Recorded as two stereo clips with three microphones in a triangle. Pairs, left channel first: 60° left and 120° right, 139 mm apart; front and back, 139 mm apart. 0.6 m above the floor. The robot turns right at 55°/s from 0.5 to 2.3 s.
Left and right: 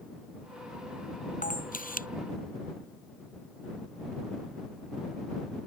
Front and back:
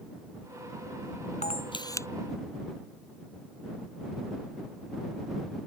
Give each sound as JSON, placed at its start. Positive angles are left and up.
{"t": 1.4, "sound": "a camera shutter", "azimuth_deg": 35}